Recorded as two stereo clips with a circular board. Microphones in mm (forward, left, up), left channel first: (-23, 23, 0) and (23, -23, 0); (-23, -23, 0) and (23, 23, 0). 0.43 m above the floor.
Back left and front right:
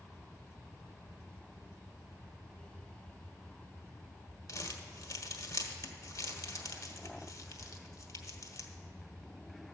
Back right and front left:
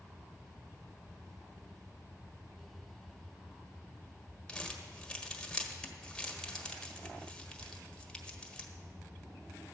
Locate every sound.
4.5 s crumpling: 150° left, 1.2 m